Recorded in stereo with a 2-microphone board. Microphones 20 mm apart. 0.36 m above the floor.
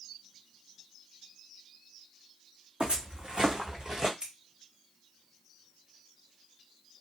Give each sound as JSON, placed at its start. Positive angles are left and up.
{"t": 2.8, "sound": "footsteps", "side_deg": -75, "distance_m": 1.4}
{"t": 4.2, "sound": "scissors", "side_deg": -45, "distance_m": 1.2}